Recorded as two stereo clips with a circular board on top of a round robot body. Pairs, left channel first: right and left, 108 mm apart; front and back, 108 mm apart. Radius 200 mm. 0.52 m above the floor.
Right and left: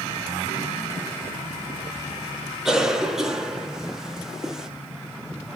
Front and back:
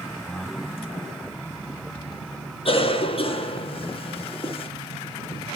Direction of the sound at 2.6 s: 5° left.